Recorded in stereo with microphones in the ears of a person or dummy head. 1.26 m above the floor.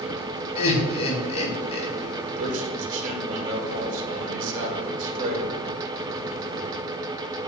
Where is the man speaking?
50° right (ahead or behind), 2.5 m.